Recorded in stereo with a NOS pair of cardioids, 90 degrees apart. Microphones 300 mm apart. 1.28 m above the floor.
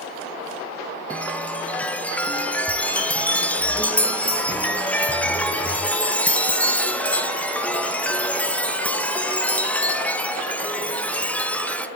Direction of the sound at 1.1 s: 5° left.